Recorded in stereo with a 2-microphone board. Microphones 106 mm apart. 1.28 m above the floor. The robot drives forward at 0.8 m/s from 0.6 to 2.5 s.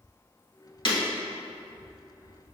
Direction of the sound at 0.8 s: 50° left (ahead or behind).